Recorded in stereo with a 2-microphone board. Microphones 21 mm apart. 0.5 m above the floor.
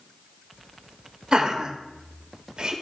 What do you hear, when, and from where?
1.3 s laughter: 45° right (ahead or behind), 1.5 m